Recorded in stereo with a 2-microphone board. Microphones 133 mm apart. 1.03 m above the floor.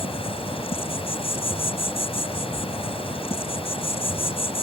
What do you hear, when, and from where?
0.0 s an insect: 45° left (ahead or behind)